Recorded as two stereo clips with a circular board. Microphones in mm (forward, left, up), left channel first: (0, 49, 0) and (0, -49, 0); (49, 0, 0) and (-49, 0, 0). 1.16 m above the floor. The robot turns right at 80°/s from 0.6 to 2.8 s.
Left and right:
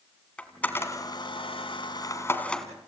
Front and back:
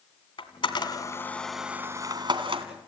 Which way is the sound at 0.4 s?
15° left.